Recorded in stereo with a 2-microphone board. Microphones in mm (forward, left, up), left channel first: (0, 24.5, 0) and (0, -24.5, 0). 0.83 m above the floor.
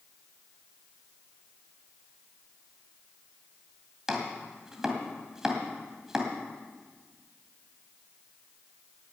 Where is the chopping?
10° right (ahead or behind), 2 m.